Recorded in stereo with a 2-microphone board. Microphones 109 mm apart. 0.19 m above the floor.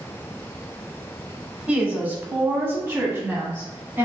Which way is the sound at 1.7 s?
15° right (ahead or behind).